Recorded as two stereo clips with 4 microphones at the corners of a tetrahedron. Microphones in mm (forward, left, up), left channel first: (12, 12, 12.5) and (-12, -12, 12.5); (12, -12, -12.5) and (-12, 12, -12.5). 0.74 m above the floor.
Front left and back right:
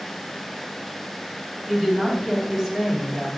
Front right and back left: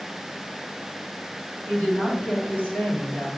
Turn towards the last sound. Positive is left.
turn(degrees=-45)